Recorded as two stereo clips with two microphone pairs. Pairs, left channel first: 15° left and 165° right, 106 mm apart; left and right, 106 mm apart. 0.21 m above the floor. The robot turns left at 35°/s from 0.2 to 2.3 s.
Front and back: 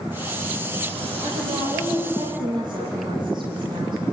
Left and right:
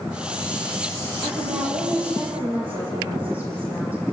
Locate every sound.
1.2 s a woman speaking: 170° right, 9 m; by 4.0 s 155° left, 9 m